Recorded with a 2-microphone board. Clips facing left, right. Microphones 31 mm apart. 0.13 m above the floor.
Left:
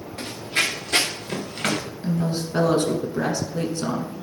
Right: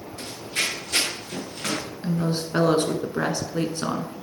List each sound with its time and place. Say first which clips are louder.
0.2 s running footsteps: left 4 dB; 45° left (ahead or behind), 2 m; by 1.8 s 55° left (ahead or behind), 3 m
2.0 s a woman speaking: even; 25° right (ahead or behind), 1.1 m